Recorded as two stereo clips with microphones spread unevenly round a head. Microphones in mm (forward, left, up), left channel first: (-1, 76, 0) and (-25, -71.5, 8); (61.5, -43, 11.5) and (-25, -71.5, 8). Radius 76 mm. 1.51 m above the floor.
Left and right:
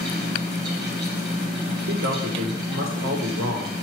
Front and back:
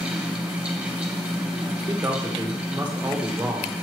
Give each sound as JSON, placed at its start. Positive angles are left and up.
{"t": 0.0, "sound": "a fan", "azimuth_deg": -80, "distance_m": 3.0}
{"t": 1.9, "sound": "a man speaking", "azimuth_deg": -95, "distance_m": 1.5}